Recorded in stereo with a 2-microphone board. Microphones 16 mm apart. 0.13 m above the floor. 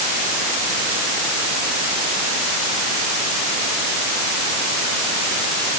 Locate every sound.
Only background noise.